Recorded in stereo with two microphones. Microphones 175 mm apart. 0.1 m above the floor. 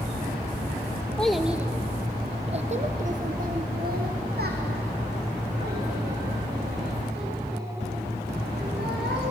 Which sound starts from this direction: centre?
A child speaking, at 1.2 s.